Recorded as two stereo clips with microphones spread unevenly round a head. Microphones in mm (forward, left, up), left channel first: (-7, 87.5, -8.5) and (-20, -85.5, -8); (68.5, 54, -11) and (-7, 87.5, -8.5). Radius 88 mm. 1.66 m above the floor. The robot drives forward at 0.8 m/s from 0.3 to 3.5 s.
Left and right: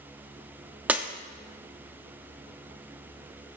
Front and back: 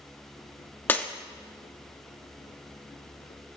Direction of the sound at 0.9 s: 30° right.